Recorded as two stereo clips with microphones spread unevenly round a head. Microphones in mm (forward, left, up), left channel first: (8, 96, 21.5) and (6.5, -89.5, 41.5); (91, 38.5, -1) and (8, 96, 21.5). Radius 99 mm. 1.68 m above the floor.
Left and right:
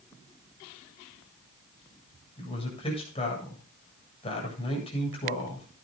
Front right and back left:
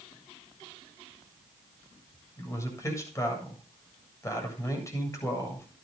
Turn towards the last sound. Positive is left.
turn(degrees=30)